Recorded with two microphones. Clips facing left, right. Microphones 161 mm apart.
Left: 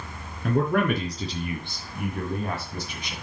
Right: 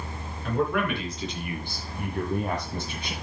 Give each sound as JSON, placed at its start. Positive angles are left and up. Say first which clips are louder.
{"t": 0.4, "sound": "a man speaking", "louder": "left 3 dB", "side_deg": 50, "distance_m": 3.5}